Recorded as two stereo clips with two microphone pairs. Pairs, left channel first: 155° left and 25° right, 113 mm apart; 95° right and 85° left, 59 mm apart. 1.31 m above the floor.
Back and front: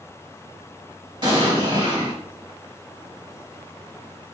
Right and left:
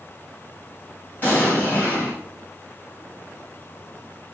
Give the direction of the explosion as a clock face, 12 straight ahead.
1 o'clock.